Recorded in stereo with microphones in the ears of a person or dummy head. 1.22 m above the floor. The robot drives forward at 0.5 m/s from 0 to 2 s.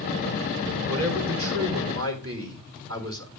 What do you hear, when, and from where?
0.9 s a man speaking: 85° right, 3 m